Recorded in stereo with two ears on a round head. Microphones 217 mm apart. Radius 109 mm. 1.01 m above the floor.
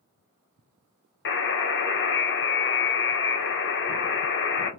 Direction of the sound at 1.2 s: 45° left (ahead or behind).